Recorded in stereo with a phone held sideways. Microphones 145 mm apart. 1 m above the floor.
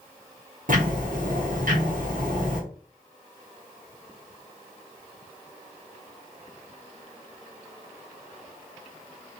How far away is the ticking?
About 1.1 m.